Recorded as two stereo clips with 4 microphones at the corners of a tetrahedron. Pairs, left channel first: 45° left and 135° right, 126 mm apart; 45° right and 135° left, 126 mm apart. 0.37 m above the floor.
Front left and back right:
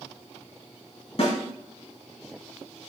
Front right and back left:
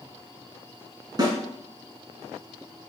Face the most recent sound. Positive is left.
turn(degrees=80)